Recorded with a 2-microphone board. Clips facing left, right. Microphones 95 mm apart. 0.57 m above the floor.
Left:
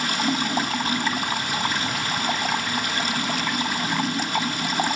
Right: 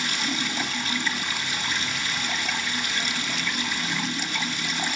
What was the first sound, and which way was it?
Running water, 50° left (ahead or behind).